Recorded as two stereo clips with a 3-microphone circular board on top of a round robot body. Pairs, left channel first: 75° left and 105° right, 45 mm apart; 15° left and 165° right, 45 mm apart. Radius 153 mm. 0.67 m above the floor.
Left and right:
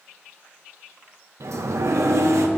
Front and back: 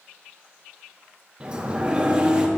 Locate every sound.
1.4 s a sliding door: 95° right, 0.6 m